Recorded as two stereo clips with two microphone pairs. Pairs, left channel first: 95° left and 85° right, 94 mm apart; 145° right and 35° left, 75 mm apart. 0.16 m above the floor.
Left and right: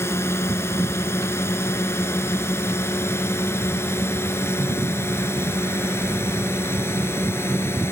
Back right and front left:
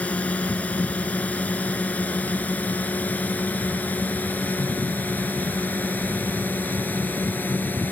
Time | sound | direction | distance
0.0 | a drone | 150° left | ?